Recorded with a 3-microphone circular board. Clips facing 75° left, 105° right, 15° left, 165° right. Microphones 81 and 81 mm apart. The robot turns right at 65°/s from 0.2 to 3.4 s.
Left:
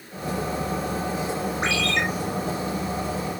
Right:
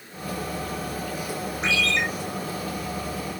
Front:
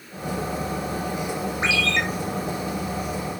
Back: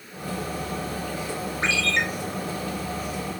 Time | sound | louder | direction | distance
1.6 | a ringtone | right 1 dB, front 1 dB | 85° left | 3.5 m